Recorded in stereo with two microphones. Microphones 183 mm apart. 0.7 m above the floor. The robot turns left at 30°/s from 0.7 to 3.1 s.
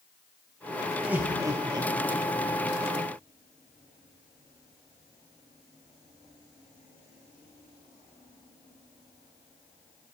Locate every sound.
1.0 s laughter: 5° right (ahead or behind), 0.8 m; by 2.2 s 30° right (ahead or behind), 0.8 m